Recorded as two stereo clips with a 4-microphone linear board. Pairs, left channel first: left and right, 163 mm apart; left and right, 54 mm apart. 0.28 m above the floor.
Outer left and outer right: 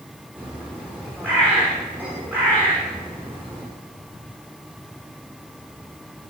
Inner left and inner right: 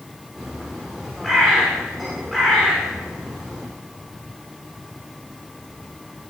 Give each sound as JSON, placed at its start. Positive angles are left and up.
{"t": 0.4, "sound": "a bird", "side_deg": -10, "distance_m": 8.0}